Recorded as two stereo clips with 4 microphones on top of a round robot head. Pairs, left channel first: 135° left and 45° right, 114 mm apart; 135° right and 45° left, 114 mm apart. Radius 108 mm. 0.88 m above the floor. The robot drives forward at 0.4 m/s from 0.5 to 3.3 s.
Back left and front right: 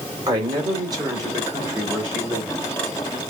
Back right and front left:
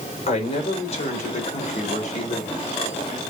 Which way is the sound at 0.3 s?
100° right.